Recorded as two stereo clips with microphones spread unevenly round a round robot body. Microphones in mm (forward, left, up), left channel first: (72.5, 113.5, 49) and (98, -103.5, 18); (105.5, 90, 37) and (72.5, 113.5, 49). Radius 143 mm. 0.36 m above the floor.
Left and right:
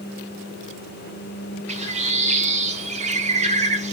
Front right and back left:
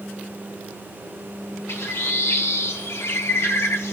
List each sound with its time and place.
1.7 s a bird: 20° right, 0.8 m